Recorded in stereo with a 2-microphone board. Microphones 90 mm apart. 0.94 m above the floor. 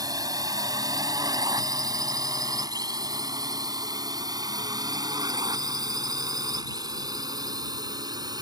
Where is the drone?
45° right (ahead or behind).